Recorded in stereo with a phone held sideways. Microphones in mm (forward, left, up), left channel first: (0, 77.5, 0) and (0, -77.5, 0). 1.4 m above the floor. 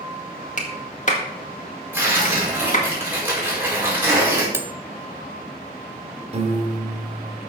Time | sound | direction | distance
0.6 | a clap | 50° left (ahead or behind) | 1.8 m
1.9 | tearing paper | 10° right (ahead or behind) | 5 m
4.5 | cutlery clinking | 15° right (ahead or behind) | 0.6 m
6.3 | a piano | 40° right (ahead or behind) | 1.8 m